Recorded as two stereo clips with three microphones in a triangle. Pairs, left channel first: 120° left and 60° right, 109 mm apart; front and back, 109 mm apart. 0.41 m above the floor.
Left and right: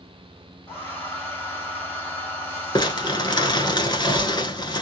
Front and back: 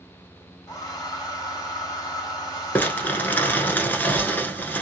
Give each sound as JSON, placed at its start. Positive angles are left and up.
{"t": 0.7, "sound": "a hair dryer", "azimuth_deg": 50, "distance_m": 2.0}
{"t": 2.8, "sound": "crumpling", "azimuth_deg": 75, "distance_m": 1.0}